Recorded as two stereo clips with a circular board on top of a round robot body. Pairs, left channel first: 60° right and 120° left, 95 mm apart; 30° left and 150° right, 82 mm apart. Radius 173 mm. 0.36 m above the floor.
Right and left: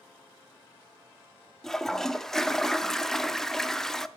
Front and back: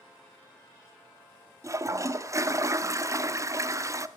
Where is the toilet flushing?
145° right, 0.7 m.